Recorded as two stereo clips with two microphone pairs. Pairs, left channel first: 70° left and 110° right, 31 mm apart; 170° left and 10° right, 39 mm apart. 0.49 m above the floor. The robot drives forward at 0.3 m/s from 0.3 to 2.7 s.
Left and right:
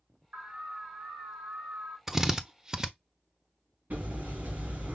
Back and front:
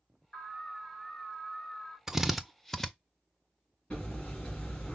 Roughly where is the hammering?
Behind right.